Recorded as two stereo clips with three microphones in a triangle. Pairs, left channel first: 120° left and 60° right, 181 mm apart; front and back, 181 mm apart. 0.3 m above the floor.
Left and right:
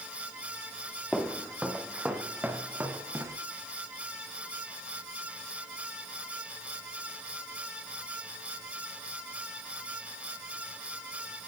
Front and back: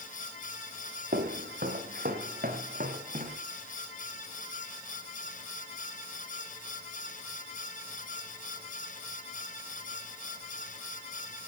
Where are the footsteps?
150° right, 3.5 m; by 3.4 s 135° right, 4.5 m.